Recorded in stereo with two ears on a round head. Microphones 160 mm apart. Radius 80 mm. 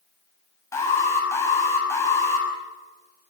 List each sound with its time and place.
0.7 s an alarm: 15° left (ahead or behind), 6 m